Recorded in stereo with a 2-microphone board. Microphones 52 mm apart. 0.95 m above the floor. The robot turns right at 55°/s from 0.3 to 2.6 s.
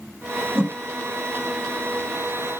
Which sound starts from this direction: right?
A whoosh, at 0.6 s.